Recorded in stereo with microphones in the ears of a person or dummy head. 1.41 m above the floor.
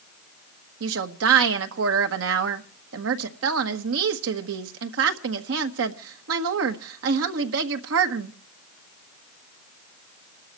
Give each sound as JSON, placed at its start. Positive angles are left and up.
{"t": 0.8, "sound": "a woman speaking", "side_deg": -75, "distance_m": 1.3}